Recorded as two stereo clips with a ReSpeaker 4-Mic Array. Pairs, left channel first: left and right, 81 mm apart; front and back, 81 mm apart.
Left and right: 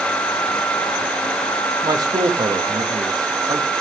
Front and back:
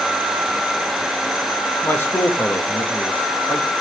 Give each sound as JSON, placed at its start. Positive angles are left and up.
{"t": 1.8, "sound": "a man speaking", "azimuth_deg": -60, "distance_m": 1.3}